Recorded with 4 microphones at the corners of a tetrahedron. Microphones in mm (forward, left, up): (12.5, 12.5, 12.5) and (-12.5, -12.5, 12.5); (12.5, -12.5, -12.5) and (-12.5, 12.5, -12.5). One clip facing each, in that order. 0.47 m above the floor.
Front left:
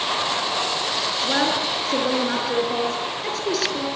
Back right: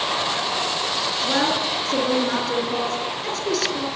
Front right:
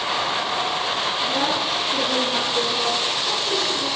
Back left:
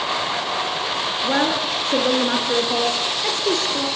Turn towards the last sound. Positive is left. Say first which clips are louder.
# even, back left 5 dB
turn(degrees=125)